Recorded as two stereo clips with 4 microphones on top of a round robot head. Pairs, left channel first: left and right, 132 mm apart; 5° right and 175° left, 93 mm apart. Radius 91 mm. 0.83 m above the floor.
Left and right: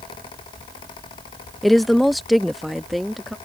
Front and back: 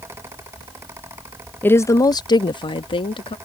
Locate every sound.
1.6 s a woman speaking: straight ahead